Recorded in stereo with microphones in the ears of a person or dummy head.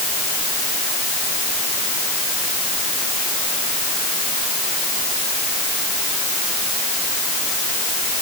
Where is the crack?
I don't hear a crack.